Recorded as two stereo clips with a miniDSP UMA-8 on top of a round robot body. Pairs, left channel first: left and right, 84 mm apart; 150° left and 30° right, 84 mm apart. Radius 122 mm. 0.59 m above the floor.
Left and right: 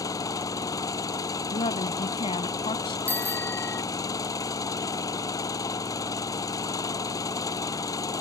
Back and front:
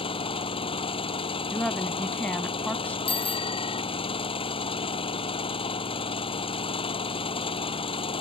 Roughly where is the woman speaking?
Left.